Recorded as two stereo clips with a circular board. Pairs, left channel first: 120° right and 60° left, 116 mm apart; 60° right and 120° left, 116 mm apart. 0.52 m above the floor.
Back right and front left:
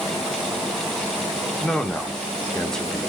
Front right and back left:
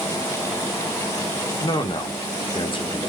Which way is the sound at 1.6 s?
35° right.